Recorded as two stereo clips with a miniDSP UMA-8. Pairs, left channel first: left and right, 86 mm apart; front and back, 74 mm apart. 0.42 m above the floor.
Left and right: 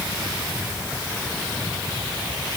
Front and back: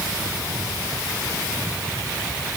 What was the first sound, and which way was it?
Only background noise.